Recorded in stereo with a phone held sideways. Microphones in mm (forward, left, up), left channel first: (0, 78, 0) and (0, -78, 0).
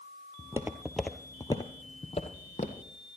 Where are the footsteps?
25° right (ahead or behind), 1.0 m; by 2.9 s 55° left (ahead or behind), 1.7 m.